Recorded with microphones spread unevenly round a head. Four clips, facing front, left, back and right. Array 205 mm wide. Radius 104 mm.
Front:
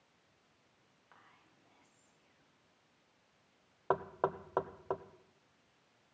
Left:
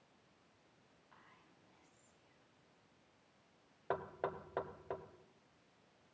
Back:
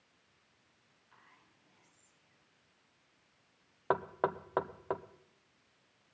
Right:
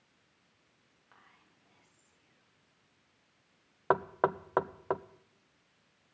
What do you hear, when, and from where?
1.1 s whispering: 60° right, 8.5 m
3.9 s knocking: 105° right, 0.6 m